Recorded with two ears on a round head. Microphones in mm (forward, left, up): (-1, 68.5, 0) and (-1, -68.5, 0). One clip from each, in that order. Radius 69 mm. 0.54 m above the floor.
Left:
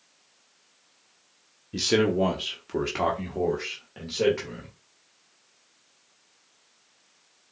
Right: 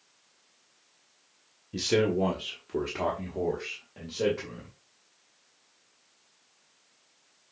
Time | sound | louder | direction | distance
1.7 | a man speaking | left 3 dB | 10° left (ahead or behind) | 0.9 m